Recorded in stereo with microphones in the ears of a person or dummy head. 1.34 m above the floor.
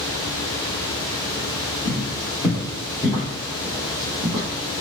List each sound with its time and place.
1.9 s footsteps: 25° left (ahead or behind), 1.5 m; by 4.5 s 15° right (ahead or behind), 1.4 m